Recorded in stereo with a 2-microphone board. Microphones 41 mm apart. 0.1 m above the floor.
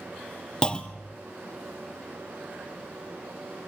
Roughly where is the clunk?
Left.